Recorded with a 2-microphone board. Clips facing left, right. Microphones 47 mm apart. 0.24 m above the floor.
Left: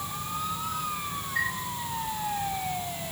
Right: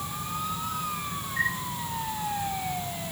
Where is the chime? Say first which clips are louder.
Right 1 dB; 65° left (ahead or behind), 9 m.